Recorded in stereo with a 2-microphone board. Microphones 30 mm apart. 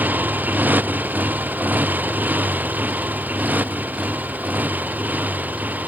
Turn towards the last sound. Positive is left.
turn(degrees=-70)  # may be behind; listen again after turning